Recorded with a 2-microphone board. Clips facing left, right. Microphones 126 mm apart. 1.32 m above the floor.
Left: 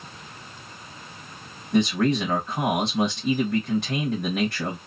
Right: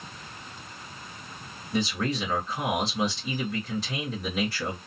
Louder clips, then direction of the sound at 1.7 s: Left 7 dB; 70° left (ahead or behind).